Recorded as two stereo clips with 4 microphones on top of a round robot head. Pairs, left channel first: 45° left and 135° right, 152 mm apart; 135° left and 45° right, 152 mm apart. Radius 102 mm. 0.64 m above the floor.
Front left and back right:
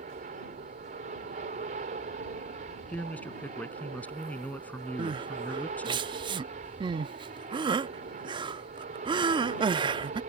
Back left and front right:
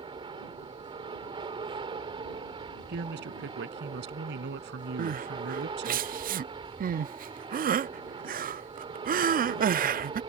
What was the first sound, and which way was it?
An aircraft, 100° right.